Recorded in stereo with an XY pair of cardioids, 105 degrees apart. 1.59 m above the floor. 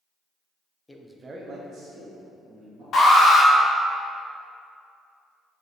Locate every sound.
0.9 s a man speaking: 15° left, 0.5 m; by 2.8 s 75° right, 2 m
2.9 s an alarm: 60° left, 1.2 m